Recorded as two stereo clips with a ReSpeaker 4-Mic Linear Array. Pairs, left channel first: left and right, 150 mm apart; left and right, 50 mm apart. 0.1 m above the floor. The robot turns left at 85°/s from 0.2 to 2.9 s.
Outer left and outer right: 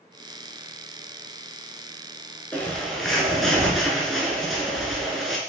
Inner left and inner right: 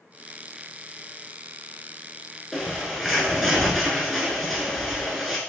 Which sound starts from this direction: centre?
A bird, at 2.5 s.